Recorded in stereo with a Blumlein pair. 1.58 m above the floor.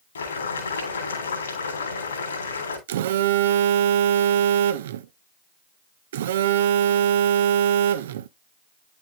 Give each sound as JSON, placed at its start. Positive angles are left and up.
{"t": 0.1, "sound": "boiling", "azimuth_deg": 70, "distance_m": 3.0}
{"t": 2.9, "sound": "a phone buzzing", "azimuth_deg": -60, "distance_m": 0.6}